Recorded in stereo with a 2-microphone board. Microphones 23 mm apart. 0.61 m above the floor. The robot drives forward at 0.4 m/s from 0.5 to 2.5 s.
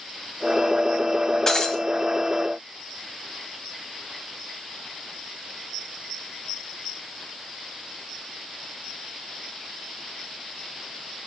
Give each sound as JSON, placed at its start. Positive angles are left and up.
{"t": 1.5, "sound": "breaking glass", "side_deg": 20, "distance_m": 1.4}